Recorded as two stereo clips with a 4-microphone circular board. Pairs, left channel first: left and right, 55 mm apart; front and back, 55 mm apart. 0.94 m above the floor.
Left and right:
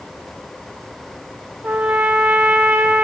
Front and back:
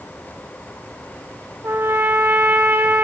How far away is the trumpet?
About 1.1 m.